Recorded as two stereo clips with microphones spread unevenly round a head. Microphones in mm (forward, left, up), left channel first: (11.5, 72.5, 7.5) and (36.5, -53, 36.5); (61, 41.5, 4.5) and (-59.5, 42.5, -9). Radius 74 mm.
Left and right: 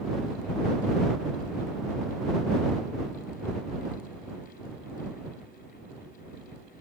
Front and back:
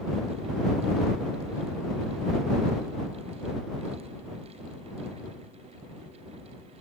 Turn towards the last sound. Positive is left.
No sound to turn to.